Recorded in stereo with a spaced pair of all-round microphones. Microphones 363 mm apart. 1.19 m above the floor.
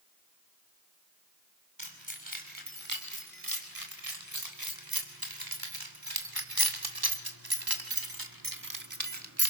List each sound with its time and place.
1.8 s keys jangling: 60° right (ahead or behind), 5 m; by 9.5 s 40° right (ahead or behind), 1.5 m